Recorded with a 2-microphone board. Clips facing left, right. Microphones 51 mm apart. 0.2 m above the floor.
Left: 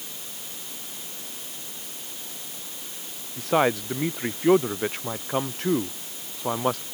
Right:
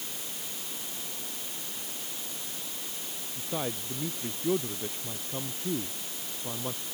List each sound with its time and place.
3.4 s a man speaking: 85° left